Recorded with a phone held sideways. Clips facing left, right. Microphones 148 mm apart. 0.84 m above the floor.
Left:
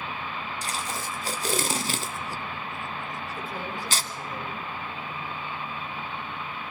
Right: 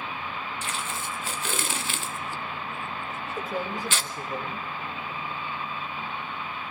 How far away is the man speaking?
About 3.5 m.